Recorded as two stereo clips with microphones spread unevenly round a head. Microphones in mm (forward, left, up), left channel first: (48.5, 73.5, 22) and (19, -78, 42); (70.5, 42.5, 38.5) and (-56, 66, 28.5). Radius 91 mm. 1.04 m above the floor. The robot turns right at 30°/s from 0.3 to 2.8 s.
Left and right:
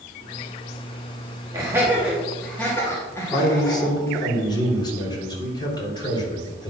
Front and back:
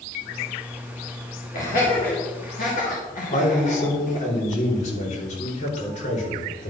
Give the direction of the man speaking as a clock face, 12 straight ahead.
11 o'clock.